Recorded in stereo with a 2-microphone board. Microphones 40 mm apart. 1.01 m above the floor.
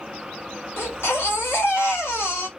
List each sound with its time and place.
0.8 s a baby crying: 75° left (ahead or behind), 2 m